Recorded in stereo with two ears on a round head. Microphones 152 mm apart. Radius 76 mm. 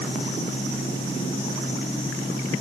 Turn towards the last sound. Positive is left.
No sound to turn to.